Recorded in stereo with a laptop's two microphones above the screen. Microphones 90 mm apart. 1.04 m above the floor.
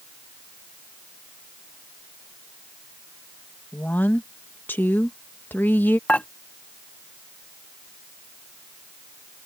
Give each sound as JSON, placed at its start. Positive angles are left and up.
{"t": 3.7, "sound": "a woman speaking", "side_deg": 20}
{"t": 6.1, "sound": "dishes clattering", "side_deg": 15}